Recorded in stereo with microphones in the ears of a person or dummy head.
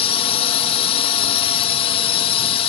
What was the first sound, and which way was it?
A drone, 30° left (ahead or behind).